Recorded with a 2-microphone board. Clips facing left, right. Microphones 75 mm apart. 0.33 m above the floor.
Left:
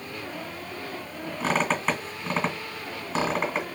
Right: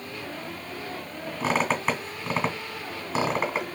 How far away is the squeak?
About 1.8 m.